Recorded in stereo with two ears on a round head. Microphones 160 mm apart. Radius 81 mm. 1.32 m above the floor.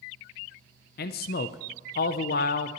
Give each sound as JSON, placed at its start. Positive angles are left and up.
{"t": 1.0, "sound": "a man speaking", "side_deg": 55, "distance_m": 0.5}